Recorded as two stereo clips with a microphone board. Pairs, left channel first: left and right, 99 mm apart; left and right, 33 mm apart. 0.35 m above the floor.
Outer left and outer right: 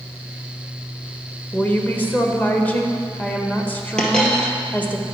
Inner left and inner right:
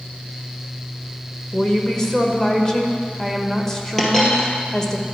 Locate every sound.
1.5 s a woman speaking: 15° left (ahead or behind), 0.9 m
4.0 s a dropped coin: 10° left (ahead or behind), 1.6 m